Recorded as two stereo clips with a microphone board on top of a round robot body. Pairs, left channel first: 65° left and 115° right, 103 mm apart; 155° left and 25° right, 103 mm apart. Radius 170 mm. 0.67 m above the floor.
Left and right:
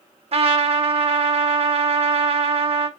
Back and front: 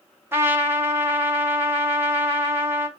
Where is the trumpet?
90° right, 1.9 m.